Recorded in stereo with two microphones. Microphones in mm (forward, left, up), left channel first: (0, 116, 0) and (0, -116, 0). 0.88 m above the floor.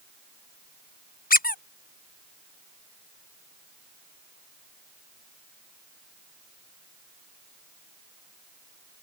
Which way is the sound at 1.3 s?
40° left (ahead or behind).